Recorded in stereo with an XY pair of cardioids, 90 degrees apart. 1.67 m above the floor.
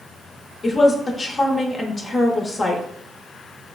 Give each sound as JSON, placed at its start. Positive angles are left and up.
{"t": 0.6, "sound": "a woman speaking", "azimuth_deg": 40, "distance_m": 0.6}